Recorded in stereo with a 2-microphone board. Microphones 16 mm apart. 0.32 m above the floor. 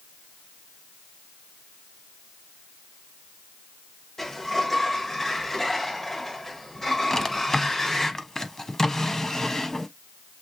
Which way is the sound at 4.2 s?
25° left (ahead or behind).